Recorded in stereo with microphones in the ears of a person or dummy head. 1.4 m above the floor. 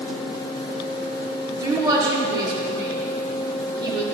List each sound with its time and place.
1.6 s a woman speaking: 25° right (ahead or behind), 3 m